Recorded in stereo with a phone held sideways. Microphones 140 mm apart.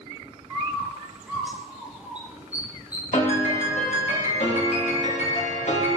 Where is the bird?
10° right (ahead or behind), 1.4 m.